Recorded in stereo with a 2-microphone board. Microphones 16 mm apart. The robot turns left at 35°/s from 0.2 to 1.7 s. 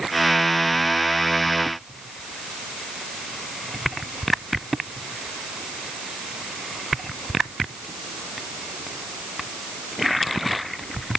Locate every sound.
Only background noise.